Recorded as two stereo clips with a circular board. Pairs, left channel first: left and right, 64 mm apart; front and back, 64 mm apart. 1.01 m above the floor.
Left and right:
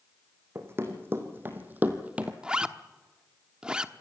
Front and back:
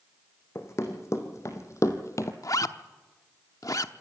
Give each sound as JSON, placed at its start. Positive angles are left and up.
{"t": 0.6, "sound": "running footsteps", "azimuth_deg": -40, "distance_m": 3.5}
{"t": 2.4, "sound": "a zipper", "azimuth_deg": -15, "distance_m": 0.9}